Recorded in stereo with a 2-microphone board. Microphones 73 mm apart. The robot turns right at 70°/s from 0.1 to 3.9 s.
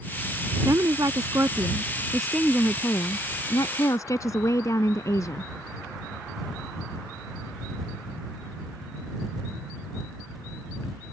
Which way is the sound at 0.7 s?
115° right.